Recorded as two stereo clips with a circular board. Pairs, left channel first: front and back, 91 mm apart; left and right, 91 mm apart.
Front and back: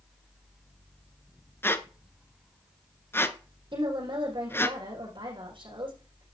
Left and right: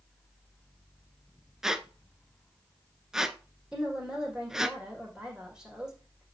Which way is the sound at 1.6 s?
10° right.